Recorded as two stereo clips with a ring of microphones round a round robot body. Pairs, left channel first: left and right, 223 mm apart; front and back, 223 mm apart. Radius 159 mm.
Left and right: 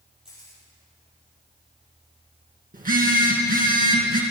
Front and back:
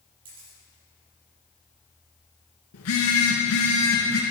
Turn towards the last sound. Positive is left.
turn(degrees=-40)